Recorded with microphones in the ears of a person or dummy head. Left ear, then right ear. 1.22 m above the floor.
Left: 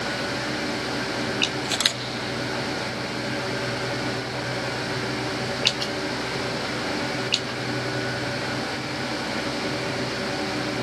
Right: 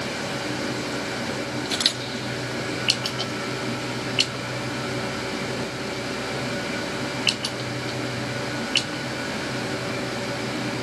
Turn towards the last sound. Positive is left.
turn(degrees=30)  # may be behind; listen again after turning